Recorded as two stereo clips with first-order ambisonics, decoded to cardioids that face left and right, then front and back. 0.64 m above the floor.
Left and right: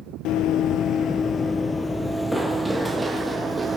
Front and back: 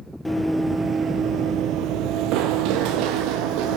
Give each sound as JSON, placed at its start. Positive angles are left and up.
{"t": 0.2, "sound": "running footsteps", "azimuth_deg": 85, "distance_m": 0.8}